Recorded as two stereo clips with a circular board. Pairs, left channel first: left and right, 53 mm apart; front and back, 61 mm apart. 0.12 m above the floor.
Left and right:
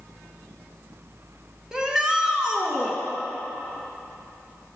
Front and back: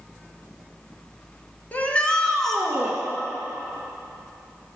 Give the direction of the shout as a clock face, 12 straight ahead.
1 o'clock.